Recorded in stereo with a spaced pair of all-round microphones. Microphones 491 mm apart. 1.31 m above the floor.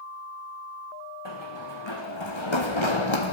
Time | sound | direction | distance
1.2 | running footsteps | 55° left (ahead or behind) | 5.5 m